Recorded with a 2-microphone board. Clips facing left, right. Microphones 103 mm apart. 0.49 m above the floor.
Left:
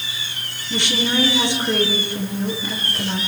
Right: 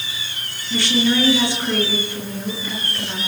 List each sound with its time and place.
0.7 s a woman speaking: 20° left (ahead or behind), 8.5 m